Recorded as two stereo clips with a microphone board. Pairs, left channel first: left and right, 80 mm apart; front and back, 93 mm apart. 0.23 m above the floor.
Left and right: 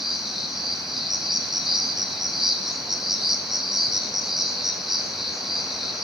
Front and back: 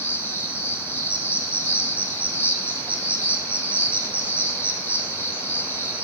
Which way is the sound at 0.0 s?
10° right.